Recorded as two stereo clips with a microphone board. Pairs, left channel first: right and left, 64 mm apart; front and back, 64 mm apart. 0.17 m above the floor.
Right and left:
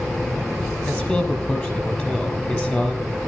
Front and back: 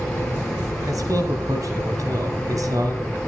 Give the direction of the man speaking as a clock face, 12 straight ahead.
5 o'clock.